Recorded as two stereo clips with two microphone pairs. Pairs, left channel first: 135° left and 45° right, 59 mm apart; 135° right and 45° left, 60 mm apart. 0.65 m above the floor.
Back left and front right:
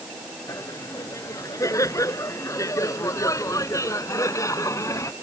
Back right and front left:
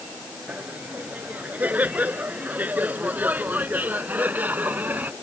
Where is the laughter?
110° left; by 5.1 s 105° left.